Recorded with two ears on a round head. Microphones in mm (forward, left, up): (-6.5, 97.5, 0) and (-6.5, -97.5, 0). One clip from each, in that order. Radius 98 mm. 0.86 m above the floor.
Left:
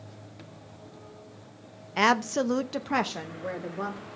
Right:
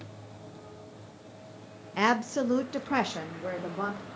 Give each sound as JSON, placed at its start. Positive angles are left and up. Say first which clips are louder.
{"t": 2.0, "sound": "a woman speaking", "louder": "left 3 dB", "side_deg": 20, "distance_m": 0.9}